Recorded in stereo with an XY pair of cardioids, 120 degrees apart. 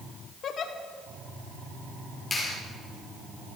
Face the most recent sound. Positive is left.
turn(degrees=20)